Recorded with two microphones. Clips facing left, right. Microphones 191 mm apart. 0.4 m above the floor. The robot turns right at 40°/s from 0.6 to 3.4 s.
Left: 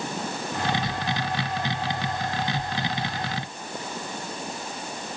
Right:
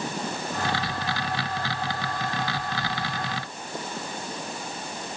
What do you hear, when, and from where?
Only background noise.